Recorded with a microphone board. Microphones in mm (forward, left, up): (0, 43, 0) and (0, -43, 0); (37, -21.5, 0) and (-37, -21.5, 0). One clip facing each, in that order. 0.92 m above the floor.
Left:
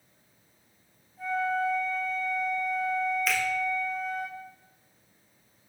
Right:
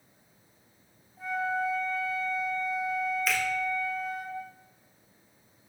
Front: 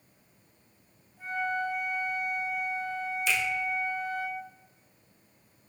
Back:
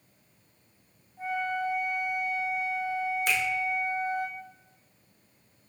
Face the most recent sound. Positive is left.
turn(degrees=-175)